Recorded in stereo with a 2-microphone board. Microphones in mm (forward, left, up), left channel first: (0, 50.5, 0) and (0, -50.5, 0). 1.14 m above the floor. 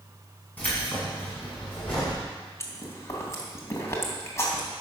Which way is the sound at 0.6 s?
15° left (ahead or behind).